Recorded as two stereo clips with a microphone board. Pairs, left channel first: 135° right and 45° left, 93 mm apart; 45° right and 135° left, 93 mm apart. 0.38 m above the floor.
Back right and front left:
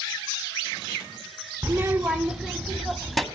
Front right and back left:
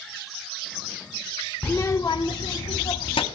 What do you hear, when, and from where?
1.6 s a child speaking: 10° left, 0.9 m; by 3.2 s 45° right, 2 m